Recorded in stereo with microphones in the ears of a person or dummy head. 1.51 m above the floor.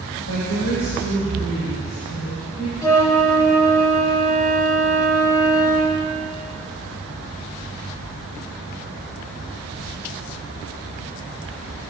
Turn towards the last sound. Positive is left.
turn(degrees=25)  # may be behind; listen again after turning